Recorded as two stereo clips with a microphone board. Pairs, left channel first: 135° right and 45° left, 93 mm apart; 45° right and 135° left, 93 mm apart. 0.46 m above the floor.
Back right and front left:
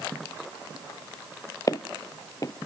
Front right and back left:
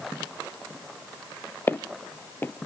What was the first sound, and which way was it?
Footsteps, 105° right.